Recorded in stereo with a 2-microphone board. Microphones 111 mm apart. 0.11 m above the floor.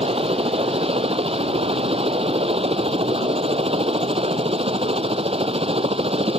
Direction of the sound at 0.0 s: 60° right (ahead or behind).